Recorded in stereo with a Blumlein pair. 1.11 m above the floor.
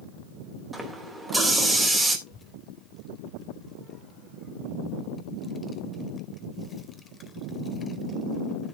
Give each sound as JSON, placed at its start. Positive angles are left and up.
{"t": 0.7, "sound": "a running tap", "azimuth_deg": -5, "distance_m": 3.0}
{"t": 2.3, "sound": "a child speaking", "azimuth_deg": 15, "distance_m": 2.5}